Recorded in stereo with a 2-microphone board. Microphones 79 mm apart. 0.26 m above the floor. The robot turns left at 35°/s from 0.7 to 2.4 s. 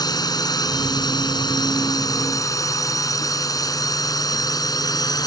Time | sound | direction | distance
0.0 | a drone | 60° left (ahead or behind) | ?